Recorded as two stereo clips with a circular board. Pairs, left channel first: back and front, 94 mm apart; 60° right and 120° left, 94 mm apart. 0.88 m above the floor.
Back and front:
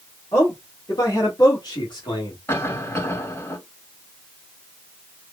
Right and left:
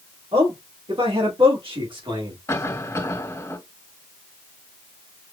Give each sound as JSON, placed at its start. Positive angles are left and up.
{"t": 0.3, "sound": "a man speaking", "azimuth_deg": 125, "distance_m": 3.0}
{"t": 2.5, "sound": "a cough", "azimuth_deg": -125, "distance_m": 2.0}